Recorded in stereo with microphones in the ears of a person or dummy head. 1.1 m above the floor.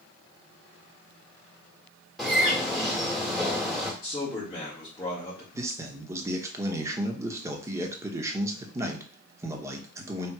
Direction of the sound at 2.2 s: Centre (ahead or behind).